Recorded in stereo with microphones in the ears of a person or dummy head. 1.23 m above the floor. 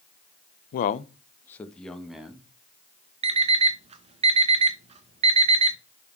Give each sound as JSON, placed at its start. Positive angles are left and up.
{"t": 0.7, "sound": "a man speaking", "side_deg": 60, "distance_m": 0.5}
{"t": 3.2, "sound": "an alarm clock", "side_deg": -35, "distance_m": 0.6}